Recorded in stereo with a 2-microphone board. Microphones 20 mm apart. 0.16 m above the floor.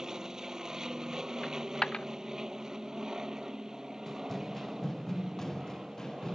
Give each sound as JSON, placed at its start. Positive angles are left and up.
{"t": 0.0, "sound": "an aircraft", "side_deg": -30}
{"t": 1.4, "sound": "a dropped coin", "side_deg": 50}
{"t": 4.1, "sound": "running footsteps", "side_deg": 5}